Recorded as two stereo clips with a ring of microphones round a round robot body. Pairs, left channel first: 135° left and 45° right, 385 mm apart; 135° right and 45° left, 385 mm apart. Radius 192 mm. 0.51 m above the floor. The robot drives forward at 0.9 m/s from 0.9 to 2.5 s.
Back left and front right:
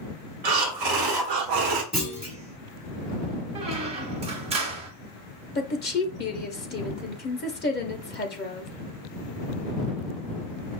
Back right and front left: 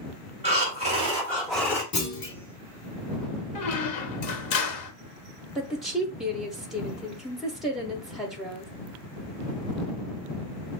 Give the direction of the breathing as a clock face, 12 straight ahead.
1 o'clock.